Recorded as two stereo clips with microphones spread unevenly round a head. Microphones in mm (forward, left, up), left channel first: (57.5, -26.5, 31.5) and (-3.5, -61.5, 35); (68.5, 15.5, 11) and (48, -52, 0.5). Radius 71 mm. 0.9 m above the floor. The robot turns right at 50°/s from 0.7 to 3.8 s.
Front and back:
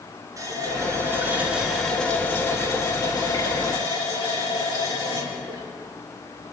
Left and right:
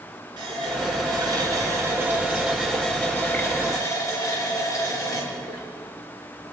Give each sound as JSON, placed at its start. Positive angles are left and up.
{"t": 0.4, "sound": "a running tap", "azimuth_deg": -110, "distance_m": 7.5}